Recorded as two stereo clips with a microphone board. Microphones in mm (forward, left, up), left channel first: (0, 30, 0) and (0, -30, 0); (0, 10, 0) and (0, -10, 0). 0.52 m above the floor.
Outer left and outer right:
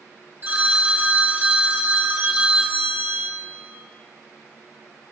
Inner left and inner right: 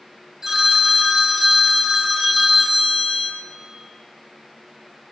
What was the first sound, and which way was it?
A phone ringing, 35° right (ahead or behind).